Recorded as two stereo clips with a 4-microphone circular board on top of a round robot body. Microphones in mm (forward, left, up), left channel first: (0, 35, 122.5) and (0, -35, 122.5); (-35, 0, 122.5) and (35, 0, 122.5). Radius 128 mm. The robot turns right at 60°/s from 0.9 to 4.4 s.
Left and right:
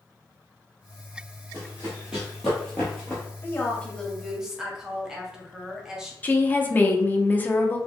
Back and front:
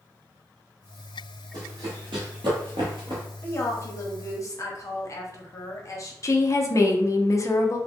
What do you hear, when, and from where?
1.5 s running footsteps: 40° right, 1.4 m; by 3.2 s 10° left, 0.6 m
3.4 s a woman speaking: 135° left, 1.0 m; by 6.1 s 170° right, 1.0 m
6.2 s a woman speaking: 150° left, 0.8 m